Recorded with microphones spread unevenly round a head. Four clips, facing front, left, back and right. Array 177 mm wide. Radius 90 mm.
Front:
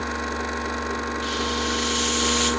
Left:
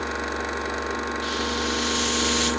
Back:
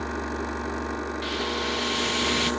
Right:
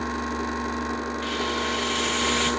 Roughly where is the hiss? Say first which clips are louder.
Even, front 2 dB; behind.